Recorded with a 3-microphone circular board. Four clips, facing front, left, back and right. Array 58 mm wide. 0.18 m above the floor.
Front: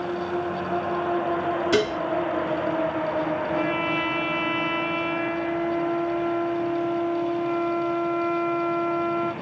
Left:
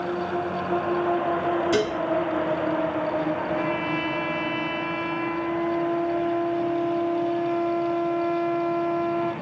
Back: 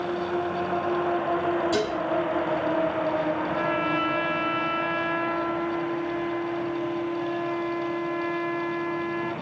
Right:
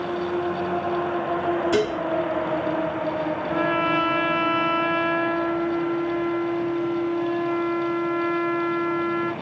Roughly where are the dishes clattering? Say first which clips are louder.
Right 1 dB, front 3 dB; ahead.